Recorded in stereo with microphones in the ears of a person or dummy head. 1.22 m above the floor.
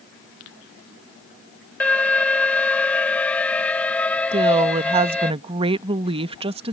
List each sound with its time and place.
1.8 s an alarm: 10° left (ahead or behind)
4.3 s a woman speaking: 25° right (ahead or behind)